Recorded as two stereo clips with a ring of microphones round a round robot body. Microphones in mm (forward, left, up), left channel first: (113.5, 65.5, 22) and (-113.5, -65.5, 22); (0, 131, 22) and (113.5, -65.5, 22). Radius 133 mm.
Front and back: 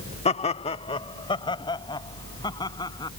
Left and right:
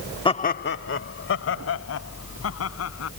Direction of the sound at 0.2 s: 70° left.